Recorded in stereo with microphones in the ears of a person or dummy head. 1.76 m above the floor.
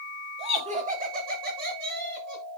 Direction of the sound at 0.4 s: 30° right (ahead or behind).